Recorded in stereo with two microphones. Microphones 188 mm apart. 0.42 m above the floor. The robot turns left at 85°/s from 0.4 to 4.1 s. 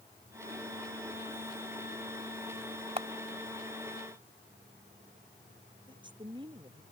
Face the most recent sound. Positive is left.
turn(degrees=-25)  # may be behind; listen again after turning